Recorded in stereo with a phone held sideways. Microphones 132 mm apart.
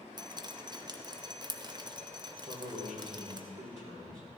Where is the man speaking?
80° right, 3 m.